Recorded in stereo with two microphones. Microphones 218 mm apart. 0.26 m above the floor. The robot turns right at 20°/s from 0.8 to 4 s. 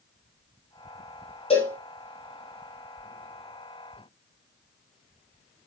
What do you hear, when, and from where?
1.5 s a cowbell: 25° left (ahead or behind), 5 m; by 1.8 s 35° left (ahead or behind), 5 m